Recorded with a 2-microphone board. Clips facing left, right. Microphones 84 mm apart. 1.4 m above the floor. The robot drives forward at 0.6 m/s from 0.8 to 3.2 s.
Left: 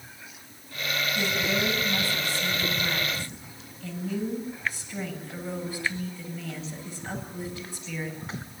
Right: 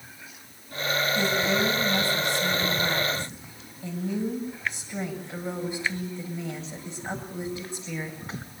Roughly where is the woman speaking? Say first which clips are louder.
Right 2 dB; centre.